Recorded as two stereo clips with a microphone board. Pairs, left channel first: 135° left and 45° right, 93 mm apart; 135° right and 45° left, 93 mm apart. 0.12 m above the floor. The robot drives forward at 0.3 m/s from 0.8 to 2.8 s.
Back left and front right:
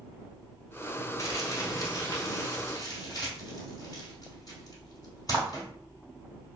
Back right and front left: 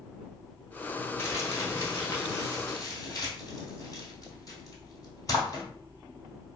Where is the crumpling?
175° left, 0.9 m.